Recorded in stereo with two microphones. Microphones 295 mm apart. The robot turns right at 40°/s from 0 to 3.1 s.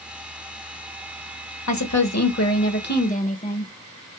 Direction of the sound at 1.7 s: 95° left.